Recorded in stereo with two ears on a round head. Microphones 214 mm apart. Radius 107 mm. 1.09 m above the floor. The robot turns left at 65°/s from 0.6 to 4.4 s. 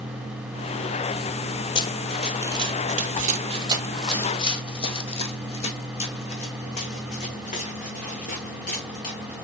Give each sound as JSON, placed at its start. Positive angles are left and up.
{"t": 1.8, "sound": "running footsteps", "side_deg": 20, "distance_m": 1.1}